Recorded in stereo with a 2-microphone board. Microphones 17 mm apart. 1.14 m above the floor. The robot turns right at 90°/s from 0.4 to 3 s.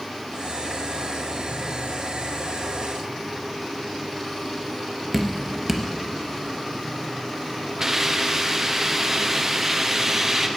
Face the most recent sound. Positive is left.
turn(degrees=-20)  # may be behind; listen again after turning